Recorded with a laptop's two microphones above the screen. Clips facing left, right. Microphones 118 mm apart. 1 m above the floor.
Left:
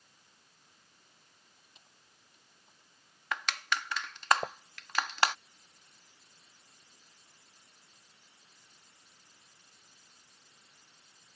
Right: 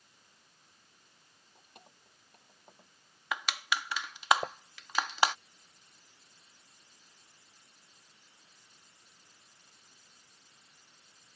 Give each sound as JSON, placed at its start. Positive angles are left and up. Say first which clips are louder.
{"t": 1.6, "sound": "keys jangling", "louder": "right 7 dB", "side_deg": -55}
{"t": 3.3, "sound": "crushing", "louder": "even", "side_deg": -10}